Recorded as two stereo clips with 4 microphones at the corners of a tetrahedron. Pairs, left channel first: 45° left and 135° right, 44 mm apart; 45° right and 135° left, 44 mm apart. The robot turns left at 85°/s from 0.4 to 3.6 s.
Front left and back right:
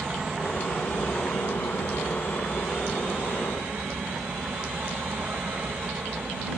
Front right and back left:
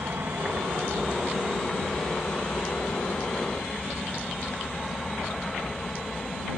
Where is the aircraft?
155° left; by 6.6 s 120° right.